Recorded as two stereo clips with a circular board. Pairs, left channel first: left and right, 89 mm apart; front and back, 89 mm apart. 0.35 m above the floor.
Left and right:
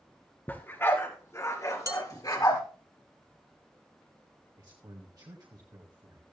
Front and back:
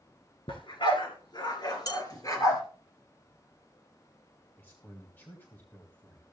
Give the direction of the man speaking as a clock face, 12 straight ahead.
2 o'clock.